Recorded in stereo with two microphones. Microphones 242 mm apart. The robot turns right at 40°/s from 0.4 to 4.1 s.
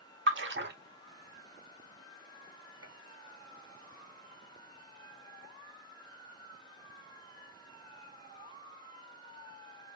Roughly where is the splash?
Right.